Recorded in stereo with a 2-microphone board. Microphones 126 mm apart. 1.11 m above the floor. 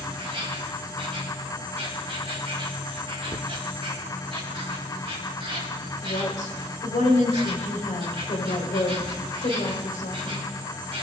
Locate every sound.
0.0 s an insect: 45° right (ahead or behind), 2 m
3.3 s a cupboard door: 45° right (ahead or behind), 0.6 m
6.0 s a woman speaking: 90° left, 4 m